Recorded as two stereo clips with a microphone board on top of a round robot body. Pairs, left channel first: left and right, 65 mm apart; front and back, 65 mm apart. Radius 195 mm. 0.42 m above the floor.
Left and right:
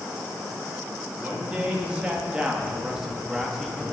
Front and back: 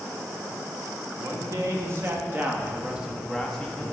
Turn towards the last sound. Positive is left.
turn(degrees=5)